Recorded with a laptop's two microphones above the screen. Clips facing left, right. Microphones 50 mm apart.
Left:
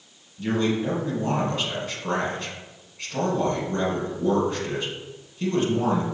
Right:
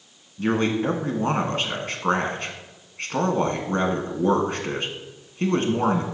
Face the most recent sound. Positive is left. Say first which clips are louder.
# right 2 dB
turn(degrees=-40)  # may be behind; listen again after turning